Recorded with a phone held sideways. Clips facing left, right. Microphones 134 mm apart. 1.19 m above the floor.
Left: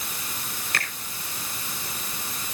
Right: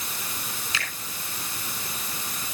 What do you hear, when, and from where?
0.7 s a finger snap: 60° left (ahead or behind), 4.5 m